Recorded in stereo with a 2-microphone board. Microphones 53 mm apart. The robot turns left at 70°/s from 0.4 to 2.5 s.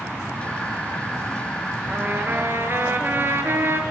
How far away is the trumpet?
About 2 m.